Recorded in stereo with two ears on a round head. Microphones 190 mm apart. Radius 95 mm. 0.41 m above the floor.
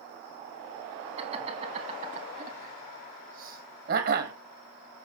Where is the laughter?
30° right (ahead or behind), 4 m; by 4.3 s 50° right (ahead or behind), 2.5 m.